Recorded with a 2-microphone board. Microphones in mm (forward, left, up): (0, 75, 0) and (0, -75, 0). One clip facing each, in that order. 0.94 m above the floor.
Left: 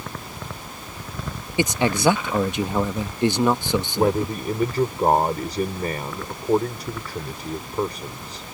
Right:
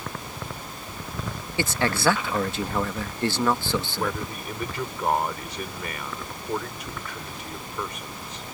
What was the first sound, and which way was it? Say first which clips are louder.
A man speaking: left 4 dB; 15° left (ahead or behind).